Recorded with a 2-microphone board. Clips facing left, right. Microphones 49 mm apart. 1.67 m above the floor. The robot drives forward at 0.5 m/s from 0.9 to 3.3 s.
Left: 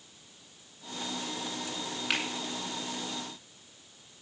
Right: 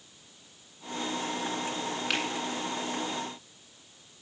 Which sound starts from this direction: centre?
A finger snap, at 2.1 s.